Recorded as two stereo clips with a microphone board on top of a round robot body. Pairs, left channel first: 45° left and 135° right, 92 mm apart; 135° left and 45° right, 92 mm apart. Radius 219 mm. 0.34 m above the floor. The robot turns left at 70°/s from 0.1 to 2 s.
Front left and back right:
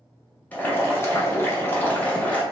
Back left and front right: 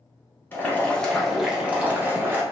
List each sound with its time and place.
0.5 s boiling: 95° left, 1.0 m; by 2.4 s 5° right, 1.0 m